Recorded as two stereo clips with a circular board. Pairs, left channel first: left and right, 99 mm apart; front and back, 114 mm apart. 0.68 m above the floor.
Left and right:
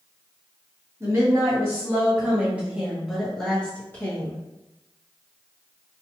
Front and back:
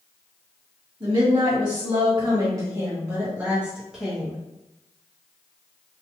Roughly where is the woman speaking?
Behind right.